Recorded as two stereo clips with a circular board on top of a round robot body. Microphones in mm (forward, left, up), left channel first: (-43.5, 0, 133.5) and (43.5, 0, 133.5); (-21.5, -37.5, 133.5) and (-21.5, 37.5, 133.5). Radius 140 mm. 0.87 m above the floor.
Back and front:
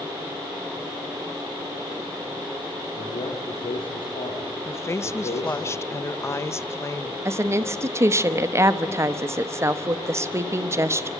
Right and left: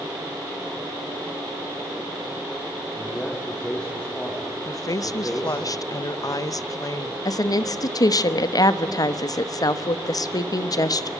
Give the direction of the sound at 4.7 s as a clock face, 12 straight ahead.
4 o'clock.